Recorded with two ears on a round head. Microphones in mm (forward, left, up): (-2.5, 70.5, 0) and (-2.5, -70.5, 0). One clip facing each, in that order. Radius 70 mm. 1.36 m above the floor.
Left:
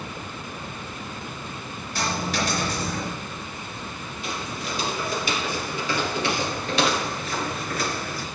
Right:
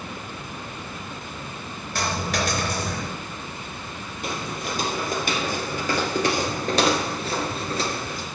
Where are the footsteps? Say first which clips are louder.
Right 2 dB; 40° right (ahead or behind), 2.5 m; by 8.2 s 20° right (ahead or behind), 1.3 m.